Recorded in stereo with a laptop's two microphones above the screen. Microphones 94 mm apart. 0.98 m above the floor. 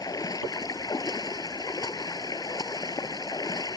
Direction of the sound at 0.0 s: 40° left (ahead or behind).